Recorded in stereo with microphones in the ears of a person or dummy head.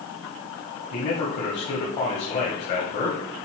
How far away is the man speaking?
About 1.3 m.